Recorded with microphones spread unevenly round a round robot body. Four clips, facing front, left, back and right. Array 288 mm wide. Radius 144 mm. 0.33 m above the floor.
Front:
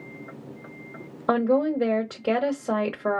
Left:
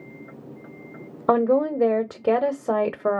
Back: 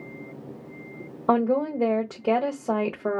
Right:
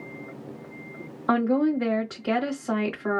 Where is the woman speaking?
90° left, 1.1 m.